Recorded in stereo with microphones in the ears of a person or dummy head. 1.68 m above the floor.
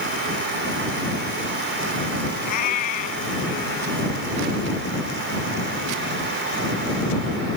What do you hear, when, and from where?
2.5 s a cat meowing: 55° left (ahead or behind)